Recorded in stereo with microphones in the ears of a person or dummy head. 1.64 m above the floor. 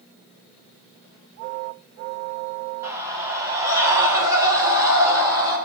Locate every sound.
2.8 s a scream: 15° right (ahead or behind), 7 m; by 5.6 s 20° right (ahead or behind), 10 m